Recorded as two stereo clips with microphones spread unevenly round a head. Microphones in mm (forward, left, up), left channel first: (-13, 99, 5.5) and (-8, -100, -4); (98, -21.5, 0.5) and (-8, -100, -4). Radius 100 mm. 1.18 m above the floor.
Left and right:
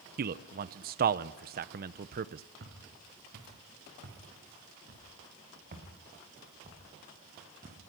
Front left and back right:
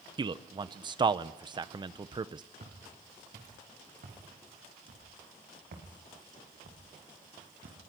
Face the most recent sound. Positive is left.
turn(degrees=-150)